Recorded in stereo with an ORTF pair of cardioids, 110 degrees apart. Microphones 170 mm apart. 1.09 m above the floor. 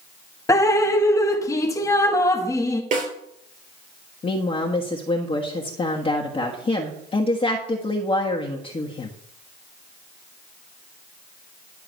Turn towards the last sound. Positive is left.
turn(degrees=30)